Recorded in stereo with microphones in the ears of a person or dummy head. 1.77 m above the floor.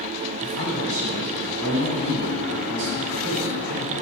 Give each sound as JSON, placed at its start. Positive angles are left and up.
{"t": 0.4, "sound": "a man speaking", "side_deg": -75, "distance_m": 2.5}